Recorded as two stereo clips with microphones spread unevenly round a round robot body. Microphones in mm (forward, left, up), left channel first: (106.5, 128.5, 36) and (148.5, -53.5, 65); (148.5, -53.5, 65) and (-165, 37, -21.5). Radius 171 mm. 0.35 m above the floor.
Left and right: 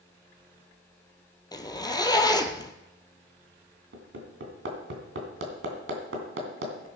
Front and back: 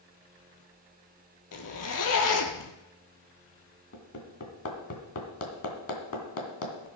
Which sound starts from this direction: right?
Hammering, at 3.9 s.